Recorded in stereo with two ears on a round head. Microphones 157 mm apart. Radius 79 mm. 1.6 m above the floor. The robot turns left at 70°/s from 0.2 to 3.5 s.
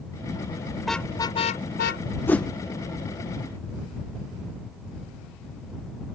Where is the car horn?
175° right; by 2.0 s 100° left.